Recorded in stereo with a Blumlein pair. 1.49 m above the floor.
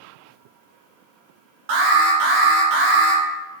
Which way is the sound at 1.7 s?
45° right.